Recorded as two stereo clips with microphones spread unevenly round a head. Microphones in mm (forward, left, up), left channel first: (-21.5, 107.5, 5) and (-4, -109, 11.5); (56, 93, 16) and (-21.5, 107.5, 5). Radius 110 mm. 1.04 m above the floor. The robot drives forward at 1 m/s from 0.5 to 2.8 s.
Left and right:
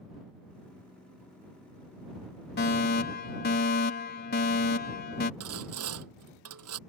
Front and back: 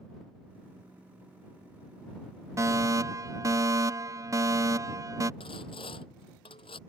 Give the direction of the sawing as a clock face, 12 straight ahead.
2 o'clock.